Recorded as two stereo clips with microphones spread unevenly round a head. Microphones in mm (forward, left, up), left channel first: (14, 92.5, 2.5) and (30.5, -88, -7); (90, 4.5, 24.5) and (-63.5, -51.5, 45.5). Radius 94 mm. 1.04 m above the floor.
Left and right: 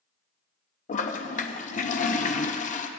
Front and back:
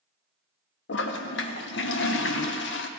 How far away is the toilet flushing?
About 0.8 m.